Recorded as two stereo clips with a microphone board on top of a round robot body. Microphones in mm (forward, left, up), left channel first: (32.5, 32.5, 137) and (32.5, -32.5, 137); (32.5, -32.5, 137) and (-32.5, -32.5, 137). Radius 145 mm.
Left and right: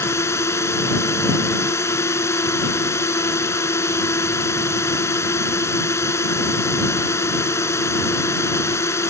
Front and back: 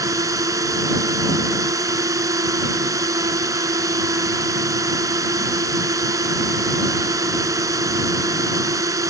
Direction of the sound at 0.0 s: 140° left.